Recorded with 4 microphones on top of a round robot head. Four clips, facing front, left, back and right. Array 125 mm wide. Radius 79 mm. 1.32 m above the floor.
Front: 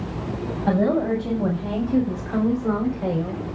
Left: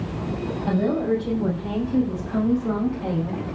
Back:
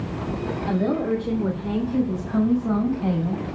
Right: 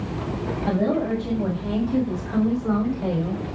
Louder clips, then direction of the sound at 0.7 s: Left 1 dB, front 3 dB; 15° right.